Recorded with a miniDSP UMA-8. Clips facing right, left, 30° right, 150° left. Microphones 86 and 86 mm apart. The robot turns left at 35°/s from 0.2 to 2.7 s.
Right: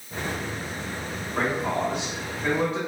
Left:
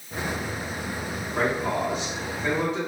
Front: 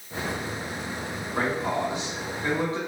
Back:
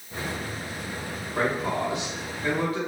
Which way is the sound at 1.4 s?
10° left.